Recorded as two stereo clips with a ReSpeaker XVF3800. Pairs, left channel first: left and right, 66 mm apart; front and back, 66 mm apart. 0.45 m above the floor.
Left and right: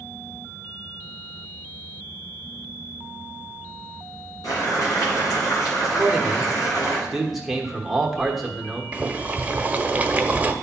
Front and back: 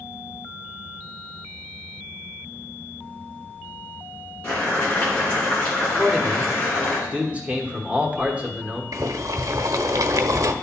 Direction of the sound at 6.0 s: 170° right.